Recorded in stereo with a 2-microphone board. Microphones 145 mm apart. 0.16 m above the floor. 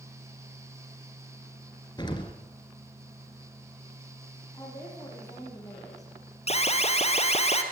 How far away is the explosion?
About 3 m.